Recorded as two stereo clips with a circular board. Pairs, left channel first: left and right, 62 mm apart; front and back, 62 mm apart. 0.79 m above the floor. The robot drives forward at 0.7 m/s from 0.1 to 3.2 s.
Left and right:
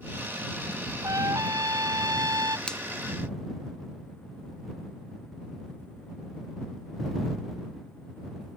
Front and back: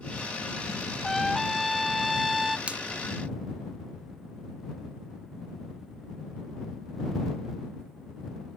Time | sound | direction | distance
1.0 | a trumpet | 90° right | ?
2.7 | a finger snap | 140° left | ?